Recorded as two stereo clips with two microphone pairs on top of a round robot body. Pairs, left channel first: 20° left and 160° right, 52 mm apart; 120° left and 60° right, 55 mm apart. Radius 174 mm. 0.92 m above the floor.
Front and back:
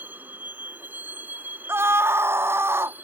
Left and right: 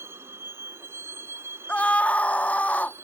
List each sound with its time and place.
0.0 s a vehicle: 105° right
1.7 s a scream: straight behind